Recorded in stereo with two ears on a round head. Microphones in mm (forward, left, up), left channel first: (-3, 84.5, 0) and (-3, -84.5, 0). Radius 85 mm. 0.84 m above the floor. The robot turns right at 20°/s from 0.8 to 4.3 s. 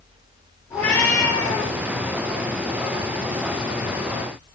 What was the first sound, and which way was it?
A cat meowing, 10° left (ahead or behind).